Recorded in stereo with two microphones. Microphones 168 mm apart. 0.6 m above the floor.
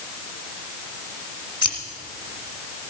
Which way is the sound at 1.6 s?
50° left (ahead or behind).